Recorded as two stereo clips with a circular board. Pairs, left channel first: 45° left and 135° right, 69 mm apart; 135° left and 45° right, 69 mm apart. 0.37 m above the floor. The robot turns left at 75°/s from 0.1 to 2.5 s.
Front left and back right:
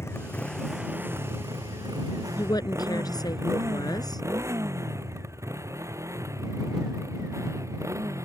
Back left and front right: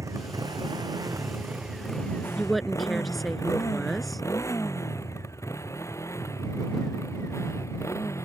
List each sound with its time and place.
0.0 s a motorcycle: 5° right; by 8.3 s straight behind
2.4 s a woman speaking: 60° left; by 4.2 s 45° left